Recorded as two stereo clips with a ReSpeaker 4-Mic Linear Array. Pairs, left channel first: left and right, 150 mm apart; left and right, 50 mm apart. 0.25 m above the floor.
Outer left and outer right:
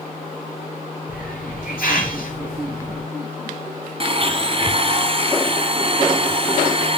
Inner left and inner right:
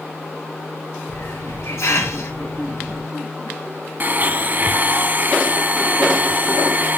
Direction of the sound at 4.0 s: 40° right (ahead or behind).